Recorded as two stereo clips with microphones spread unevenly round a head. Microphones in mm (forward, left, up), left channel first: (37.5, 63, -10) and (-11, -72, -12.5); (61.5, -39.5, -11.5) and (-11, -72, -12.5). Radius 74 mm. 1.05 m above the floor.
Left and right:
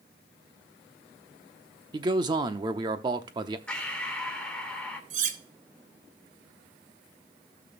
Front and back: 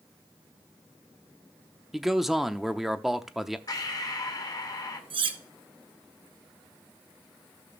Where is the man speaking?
75° right, 0.7 m.